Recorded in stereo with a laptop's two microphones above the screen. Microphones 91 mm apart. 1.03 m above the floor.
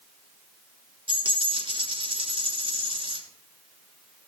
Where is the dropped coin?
75° right (ahead or behind), 3.5 m.